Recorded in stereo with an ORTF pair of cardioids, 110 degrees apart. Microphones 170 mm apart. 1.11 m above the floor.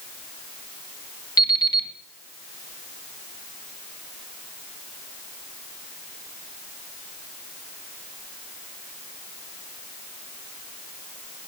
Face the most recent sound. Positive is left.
turn(degrees=25)